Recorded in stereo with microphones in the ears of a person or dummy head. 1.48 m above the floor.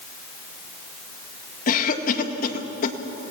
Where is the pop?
No pop in this recording.